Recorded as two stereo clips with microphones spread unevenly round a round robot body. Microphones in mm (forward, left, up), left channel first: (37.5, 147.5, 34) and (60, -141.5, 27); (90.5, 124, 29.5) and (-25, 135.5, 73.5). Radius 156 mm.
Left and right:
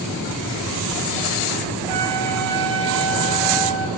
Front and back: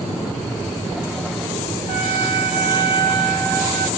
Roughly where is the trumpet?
Behind.